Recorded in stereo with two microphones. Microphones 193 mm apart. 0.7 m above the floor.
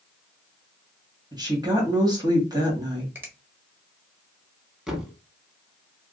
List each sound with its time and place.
1.3 s a woman speaking: 20° right (ahead or behind), 1.5 m
3.1 s a finger snap: 10° right (ahead or behind), 1.0 m
4.9 s a thud: centre (ahead or behind), 0.9 m